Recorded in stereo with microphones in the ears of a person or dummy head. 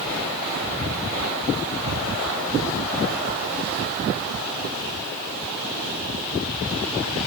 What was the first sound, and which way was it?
Only background noise.